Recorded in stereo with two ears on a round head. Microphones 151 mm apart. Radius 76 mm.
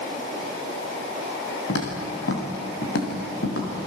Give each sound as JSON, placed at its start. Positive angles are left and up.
{"t": 1.7, "sound": "footsteps", "side_deg": 80, "distance_m": 6.5}